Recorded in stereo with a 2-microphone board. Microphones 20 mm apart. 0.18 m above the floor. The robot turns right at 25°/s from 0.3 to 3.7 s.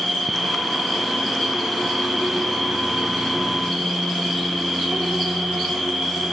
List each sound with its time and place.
0.0 s an insect: 165° left, 4.5 m; by 6.3 s 110° right, 4.5 m